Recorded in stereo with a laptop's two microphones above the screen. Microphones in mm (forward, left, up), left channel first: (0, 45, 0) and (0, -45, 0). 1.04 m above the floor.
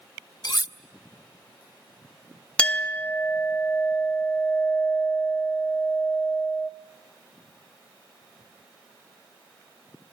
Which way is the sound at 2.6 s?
10° left (ahead or behind).